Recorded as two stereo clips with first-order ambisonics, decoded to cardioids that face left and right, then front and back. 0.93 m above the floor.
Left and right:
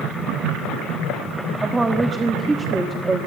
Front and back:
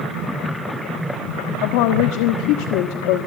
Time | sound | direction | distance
1.6 | a woman speaking | 10° right | 1.3 m